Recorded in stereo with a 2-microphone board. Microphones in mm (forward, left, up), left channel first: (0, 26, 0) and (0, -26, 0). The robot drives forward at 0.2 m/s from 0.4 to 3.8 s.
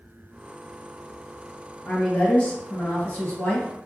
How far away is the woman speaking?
About 1.4 m.